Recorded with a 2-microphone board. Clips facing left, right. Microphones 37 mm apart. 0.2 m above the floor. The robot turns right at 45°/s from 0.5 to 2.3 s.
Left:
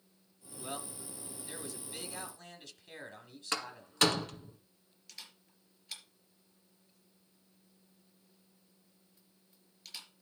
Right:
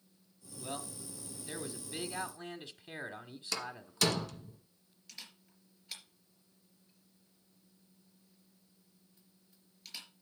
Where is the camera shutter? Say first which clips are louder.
Right 1 dB; 5° right (ahead or behind), 3.5 m.